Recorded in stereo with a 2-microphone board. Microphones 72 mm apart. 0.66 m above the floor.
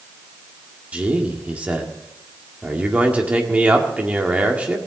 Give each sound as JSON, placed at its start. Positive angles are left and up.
{"t": 0.9, "sound": "a man speaking", "side_deg": -20, "distance_m": 1.7}